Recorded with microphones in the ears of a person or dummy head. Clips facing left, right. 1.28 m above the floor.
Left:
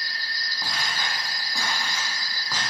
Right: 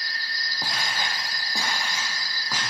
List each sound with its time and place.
0.6 s footsteps: 30° right (ahead or behind), 2.5 m; by 2.6 s 20° right (ahead or behind), 4 m